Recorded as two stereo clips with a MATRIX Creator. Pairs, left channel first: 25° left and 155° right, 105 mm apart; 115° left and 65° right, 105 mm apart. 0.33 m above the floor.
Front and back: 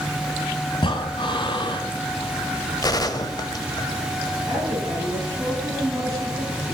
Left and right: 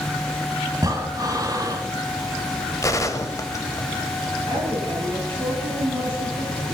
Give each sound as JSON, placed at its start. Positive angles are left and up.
{"t": 0.7, "sound": "breathing", "azimuth_deg": -15, "distance_m": 0.8}
{"t": 2.8, "sound": "a gunshot", "azimuth_deg": 65, "distance_m": 0.7}
{"t": 4.5, "sound": "a woman speaking", "azimuth_deg": -105, "distance_m": 5.0}